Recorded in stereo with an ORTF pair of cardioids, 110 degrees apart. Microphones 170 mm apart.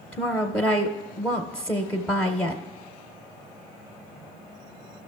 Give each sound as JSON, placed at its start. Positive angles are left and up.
{"t": 0.1, "sound": "a woman speaking", "azimuth_deg": 5, "distance_m": 0.5}